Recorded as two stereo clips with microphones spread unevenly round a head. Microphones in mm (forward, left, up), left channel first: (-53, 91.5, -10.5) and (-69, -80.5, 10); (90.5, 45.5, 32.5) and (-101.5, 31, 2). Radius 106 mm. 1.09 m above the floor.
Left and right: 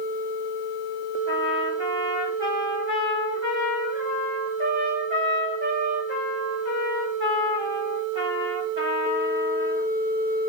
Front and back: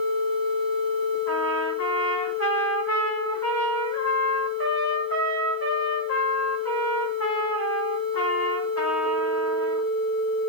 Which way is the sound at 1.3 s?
25° right.